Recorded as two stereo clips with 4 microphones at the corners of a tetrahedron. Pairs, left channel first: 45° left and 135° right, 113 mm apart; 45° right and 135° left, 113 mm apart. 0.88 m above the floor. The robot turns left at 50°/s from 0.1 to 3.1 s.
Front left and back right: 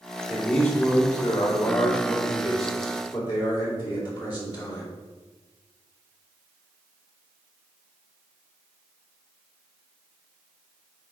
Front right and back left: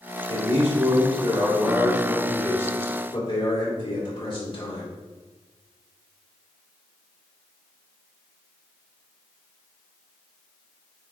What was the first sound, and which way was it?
A man speaking, 140° left.